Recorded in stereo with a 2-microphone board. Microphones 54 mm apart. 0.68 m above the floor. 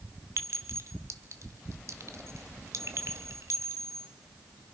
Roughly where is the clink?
Right.